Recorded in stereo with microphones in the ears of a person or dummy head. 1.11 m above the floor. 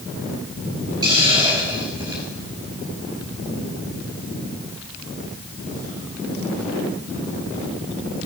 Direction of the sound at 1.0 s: 20° right (ahead or behind).